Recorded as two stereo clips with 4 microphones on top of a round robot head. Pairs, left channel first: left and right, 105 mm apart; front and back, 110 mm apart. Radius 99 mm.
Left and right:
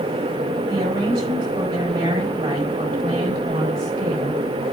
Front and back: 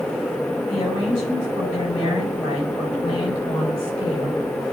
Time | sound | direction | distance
0.7 | a woman speaking | 55° right | 6.5 m